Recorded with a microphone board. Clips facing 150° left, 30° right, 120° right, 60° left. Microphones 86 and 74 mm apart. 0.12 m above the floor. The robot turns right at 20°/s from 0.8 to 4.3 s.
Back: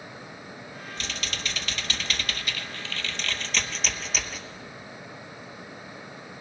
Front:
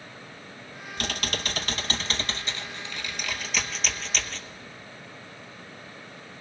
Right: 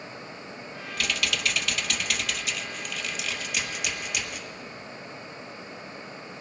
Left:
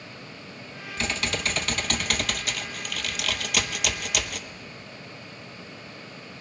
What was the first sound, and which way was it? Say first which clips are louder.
Typing on a keyboard: front 5 dB, left 1 dB; straight ahead.